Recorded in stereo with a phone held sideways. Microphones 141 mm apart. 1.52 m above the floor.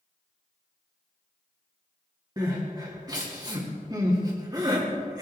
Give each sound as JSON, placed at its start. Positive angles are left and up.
{"t": 2.4, "sound": "crying", "side_deg": -30, "distance_m": 2.5}